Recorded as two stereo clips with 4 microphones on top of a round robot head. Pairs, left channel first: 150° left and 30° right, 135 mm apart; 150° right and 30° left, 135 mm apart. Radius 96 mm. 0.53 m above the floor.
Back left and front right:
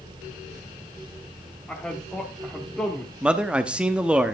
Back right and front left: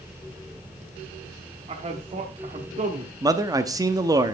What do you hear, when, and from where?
1.7 s a man speaking: 65° left, 1.2 m
3.2 s a man speaking: 40° left, 0.7 m